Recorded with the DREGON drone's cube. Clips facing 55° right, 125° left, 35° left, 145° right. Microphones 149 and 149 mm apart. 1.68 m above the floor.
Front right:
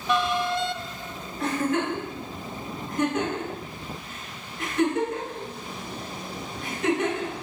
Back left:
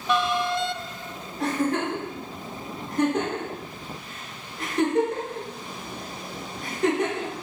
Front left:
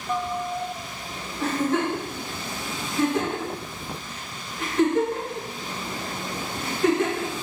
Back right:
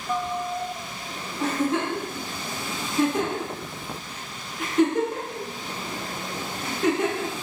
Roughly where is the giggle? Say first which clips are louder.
Back left 1 dB, front left 1 dB; behind left.